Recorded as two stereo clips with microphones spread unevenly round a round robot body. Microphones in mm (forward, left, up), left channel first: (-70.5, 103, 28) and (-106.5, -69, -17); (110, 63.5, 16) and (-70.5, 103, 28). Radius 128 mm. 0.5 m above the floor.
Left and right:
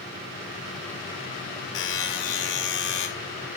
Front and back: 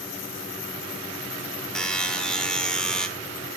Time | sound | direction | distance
1.8 | a buzzer | 70° left | 1.6 m